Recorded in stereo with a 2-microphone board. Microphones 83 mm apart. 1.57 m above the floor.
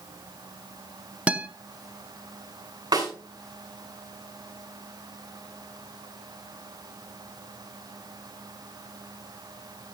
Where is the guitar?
15° right (ahead or behind), 0.7 m.